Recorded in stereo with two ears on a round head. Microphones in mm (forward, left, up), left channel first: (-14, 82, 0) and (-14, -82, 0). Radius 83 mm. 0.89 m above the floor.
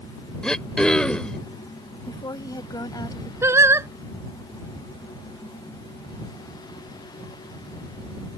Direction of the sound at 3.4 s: 15° right (ahead or behind).